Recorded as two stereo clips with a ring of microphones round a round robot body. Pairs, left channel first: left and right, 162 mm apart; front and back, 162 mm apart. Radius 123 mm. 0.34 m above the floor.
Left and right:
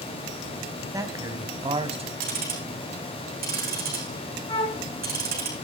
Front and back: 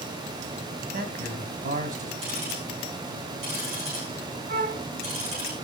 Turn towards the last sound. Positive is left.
turn(degrees=150)